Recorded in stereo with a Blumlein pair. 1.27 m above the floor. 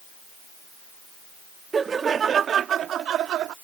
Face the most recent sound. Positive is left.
turn(degrees=-35)